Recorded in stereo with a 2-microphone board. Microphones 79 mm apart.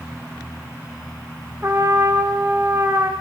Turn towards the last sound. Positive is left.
turn(degrees=-35)  # may be behind; listen again after turning